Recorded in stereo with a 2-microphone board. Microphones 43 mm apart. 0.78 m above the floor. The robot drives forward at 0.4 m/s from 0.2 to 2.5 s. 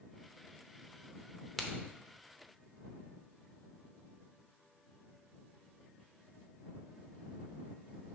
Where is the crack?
5° left (ahead or behind), 0.8 m.